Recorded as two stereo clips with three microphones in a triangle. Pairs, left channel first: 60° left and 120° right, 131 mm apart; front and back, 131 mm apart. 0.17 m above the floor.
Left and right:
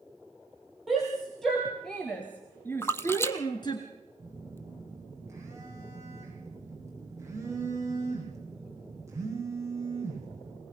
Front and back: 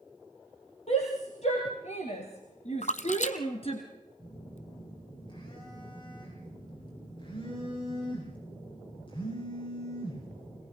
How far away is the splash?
About 1.1 m.